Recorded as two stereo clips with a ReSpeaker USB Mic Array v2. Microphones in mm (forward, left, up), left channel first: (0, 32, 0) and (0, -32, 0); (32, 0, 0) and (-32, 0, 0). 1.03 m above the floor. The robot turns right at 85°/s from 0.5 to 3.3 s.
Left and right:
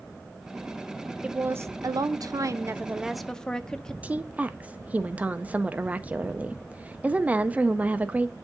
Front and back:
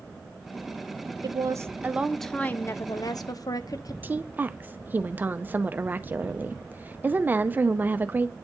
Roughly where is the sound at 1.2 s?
Behind.